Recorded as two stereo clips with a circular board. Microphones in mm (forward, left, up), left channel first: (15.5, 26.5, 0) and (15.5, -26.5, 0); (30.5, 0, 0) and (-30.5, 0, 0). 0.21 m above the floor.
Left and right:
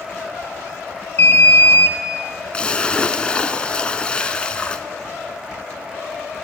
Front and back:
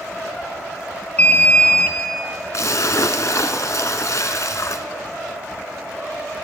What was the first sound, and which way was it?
An alarm, 60° left.